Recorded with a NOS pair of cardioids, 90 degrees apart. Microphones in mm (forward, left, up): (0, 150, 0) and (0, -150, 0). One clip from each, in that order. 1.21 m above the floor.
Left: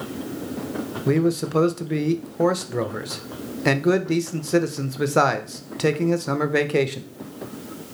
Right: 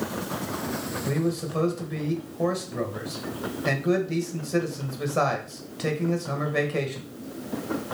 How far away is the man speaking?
About 0.7 m.